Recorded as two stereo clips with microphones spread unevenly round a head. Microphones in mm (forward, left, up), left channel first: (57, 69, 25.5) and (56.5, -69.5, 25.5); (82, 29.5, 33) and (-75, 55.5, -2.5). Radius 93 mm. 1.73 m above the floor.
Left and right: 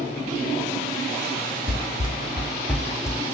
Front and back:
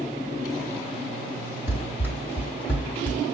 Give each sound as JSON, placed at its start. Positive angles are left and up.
{"t": 1.7, "sound": "running footsteps", "azimuth_deg": -70, "distance_m": 2.0}